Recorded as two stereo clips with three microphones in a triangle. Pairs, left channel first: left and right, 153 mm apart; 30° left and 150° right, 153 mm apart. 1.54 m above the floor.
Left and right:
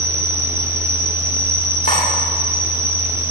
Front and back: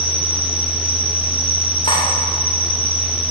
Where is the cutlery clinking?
90° left, 3 m.